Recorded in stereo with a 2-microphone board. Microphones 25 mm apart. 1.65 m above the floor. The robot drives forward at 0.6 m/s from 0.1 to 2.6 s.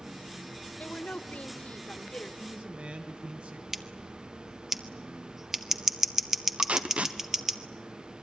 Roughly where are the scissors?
Centre.